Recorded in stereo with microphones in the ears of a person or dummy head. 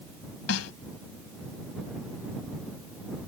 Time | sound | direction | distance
0.5 | a snare drum | 85° left | ?